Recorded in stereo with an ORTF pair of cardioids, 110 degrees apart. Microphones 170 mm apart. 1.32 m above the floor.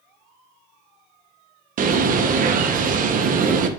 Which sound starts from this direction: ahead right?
A bird, at 1.8 s.